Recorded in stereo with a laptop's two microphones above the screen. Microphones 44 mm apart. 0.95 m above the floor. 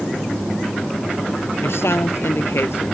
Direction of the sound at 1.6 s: 75° left (ahead or behind).